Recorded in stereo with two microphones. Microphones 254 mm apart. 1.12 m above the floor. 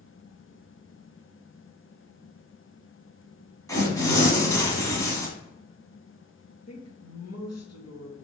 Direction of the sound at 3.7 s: 15° left (ahead or behind).